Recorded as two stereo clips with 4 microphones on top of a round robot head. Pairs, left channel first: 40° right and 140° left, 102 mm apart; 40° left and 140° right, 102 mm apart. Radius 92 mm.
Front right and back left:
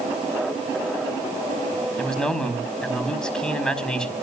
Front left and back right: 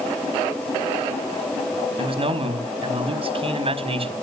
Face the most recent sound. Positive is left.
turn(degrees=-125)